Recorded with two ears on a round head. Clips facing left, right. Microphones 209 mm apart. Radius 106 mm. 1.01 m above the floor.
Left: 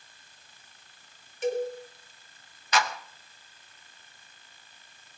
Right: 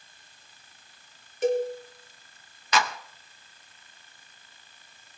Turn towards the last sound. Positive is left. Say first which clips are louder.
# right 1 dB
turn(degrees=-65)  # may be behind; listen again after turning